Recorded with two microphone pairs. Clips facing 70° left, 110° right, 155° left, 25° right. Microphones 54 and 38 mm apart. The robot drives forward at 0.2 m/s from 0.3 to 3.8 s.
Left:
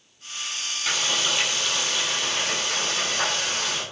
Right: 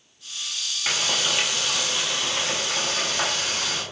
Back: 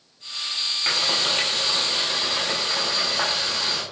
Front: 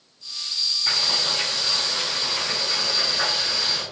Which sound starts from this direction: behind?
Frying, at 0.9 s.